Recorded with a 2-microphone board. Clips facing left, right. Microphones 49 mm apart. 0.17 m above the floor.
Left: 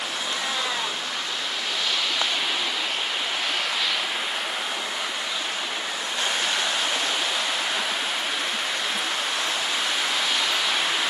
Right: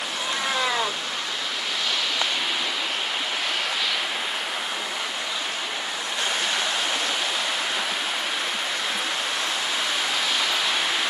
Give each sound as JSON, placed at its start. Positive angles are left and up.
{"t": 0.2, "sound": "a cat meowing", "side_deg": -80, "distance_m": 1.5}